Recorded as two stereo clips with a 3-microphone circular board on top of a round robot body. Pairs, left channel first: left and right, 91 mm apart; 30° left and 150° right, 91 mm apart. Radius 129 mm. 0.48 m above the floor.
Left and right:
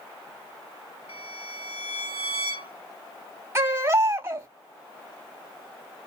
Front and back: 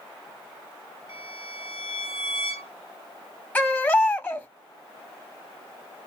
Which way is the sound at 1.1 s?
75° left.